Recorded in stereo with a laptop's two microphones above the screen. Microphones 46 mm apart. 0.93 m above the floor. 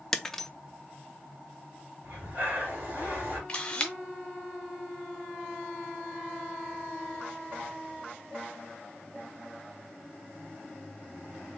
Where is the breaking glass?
5° left (ahead or behind), 0.6 m.